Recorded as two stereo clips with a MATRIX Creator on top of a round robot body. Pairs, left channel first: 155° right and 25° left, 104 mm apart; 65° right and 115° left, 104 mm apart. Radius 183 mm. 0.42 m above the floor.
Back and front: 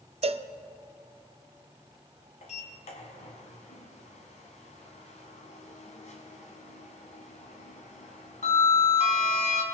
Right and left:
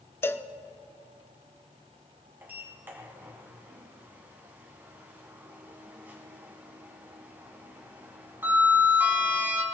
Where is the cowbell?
Straight ahead, 0.7 m.